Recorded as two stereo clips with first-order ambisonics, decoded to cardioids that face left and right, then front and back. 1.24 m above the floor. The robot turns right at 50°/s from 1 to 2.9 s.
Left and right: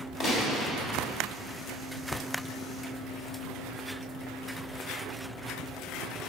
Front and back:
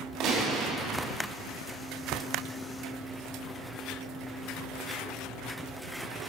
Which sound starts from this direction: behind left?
A gunshot, at 0.2 s.